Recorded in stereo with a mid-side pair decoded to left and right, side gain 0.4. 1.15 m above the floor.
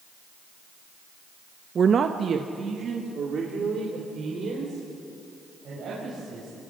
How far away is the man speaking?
About 0.7 m.